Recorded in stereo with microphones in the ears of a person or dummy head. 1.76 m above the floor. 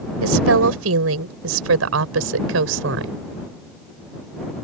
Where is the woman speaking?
85° right; by 3.2 s 70° right (ahead or behind).